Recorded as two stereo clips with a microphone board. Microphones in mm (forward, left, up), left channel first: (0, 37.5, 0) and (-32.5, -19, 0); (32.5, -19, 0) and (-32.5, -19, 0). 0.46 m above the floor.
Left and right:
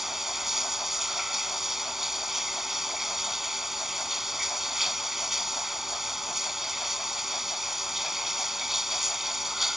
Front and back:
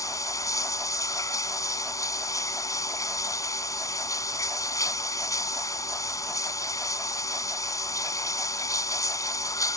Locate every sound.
0.0 s running water: 35° right